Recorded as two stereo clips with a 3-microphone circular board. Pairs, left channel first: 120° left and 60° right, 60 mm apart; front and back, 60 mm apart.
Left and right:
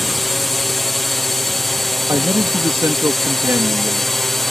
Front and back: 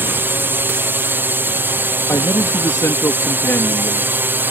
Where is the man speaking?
30° right.